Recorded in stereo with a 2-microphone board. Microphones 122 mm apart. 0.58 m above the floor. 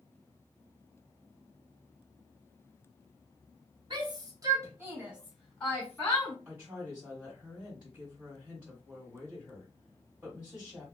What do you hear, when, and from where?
3.9 s a shout: 40° right (ahead or behind), 1.3 m; by 6.3 s 30° left (ahead or behind), 1.1 m
6.5 s a woman speaking: 15° right (ahead or behind), 1.6 m